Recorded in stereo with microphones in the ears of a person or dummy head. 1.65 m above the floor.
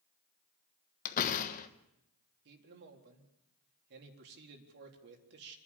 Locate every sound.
1.1 s a door slam: 40° left (ahead or behind), 1.3 m
2.5 s a man speaking: 55° right (ahead or behind), 4 m